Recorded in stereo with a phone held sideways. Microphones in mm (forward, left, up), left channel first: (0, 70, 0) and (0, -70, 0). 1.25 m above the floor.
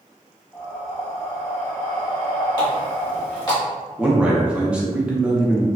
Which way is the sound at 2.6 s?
30° left (ahead or behind).